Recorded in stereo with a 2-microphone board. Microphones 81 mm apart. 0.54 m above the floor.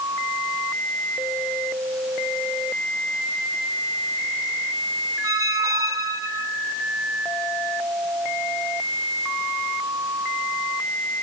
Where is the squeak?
45° right (ahead or behind), 1.2 m.